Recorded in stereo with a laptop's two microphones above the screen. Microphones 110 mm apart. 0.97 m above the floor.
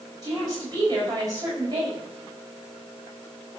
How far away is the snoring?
No snoring in this recording.